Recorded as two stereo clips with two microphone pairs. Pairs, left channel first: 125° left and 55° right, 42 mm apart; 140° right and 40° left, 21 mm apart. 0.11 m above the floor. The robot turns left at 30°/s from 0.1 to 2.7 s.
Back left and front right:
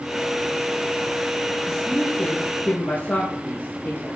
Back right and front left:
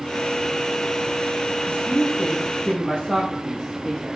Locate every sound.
1.7 s a man speaking: 155° right, 5 m; by 4.2 s 175° left, 5 m